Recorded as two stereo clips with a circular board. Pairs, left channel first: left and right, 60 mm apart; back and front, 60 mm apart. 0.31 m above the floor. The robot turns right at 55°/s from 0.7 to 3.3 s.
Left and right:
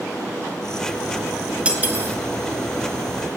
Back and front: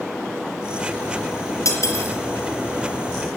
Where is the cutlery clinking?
160° right, 3 m; by 2.2 s 135° right, 3 m.